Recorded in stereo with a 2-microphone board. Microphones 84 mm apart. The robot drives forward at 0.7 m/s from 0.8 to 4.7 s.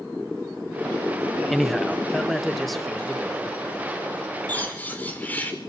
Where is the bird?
20° left (ahead or behind), 4 m.